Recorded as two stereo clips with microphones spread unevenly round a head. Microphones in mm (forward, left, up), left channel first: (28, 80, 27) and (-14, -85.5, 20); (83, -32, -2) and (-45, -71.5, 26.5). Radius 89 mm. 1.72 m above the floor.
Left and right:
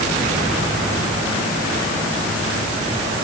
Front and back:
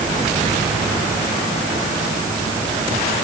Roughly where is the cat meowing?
I don't hear a cat meowing.